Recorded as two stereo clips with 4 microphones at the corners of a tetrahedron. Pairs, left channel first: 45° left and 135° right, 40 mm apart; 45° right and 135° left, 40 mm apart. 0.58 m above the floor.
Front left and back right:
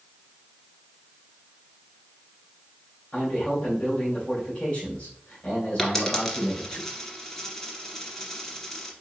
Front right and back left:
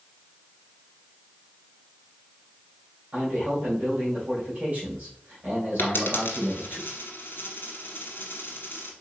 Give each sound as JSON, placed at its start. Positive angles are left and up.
{"t": 3.1, "sound": "a man speaking", "azimuth_deg": 95, "distance_m": 2.0}
{"t": 5.8, "sound": "a dropped coin", "azimuth_deg": -30, "distance_m": 1.4}